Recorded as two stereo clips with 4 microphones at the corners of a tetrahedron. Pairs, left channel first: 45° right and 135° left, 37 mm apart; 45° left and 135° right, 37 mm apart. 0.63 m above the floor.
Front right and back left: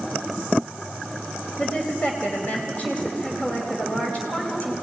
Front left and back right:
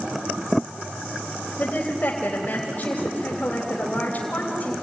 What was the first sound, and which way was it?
A woman speaking, 5° left.